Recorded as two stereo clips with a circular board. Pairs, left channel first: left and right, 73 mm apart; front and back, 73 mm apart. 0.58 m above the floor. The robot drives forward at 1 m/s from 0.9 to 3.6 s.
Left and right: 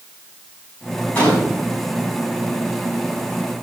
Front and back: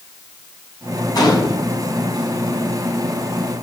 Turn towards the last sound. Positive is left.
turn(degrees=40)